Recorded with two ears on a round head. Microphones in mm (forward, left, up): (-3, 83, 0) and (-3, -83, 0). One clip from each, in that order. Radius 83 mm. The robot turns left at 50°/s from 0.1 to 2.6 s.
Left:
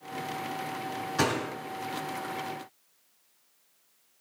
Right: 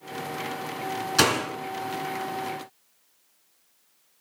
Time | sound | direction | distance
1.2 | a door slam | 80° right | 6 m